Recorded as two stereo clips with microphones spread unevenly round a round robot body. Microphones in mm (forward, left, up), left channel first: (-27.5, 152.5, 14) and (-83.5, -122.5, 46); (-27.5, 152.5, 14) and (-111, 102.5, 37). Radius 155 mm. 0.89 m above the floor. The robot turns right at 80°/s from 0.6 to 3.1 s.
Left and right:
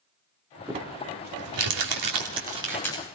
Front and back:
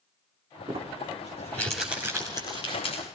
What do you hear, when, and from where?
0.7 s crumpling: straight behind, 2 m; by 3.0 s 10° left, 2 m